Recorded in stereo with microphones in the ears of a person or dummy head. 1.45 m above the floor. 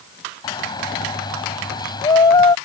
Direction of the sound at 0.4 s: 25° left (ahead or behind).